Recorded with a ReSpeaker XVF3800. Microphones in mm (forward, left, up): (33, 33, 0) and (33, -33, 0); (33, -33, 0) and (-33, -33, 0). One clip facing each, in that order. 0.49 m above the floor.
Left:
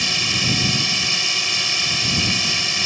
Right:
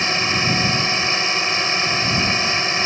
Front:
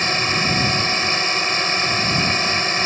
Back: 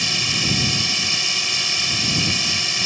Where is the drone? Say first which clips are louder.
Right 4 dB, front 5 dB; 40° right.